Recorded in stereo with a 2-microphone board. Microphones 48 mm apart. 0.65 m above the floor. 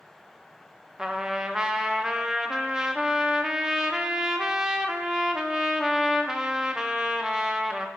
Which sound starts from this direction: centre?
A trumpet, at 1.0 s.